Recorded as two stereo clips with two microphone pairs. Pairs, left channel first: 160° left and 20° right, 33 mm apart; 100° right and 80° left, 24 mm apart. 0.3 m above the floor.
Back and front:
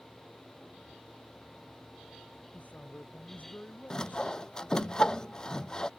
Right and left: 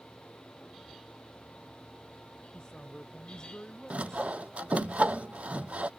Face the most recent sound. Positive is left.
turn(degrees=85)